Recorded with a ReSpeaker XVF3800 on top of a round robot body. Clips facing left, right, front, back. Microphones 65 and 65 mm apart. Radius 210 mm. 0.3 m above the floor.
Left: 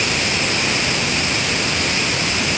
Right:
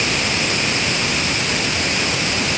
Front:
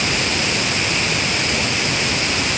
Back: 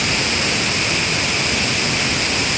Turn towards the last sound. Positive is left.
No sound to turn to.